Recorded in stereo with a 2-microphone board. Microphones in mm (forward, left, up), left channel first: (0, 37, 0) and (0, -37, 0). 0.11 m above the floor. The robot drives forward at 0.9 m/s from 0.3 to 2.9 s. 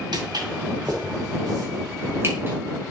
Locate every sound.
0.1 s footsteps: 75° right (ahead or behind), 2.5 m; by 2.6 s 25° right (ahead or behind), 2 m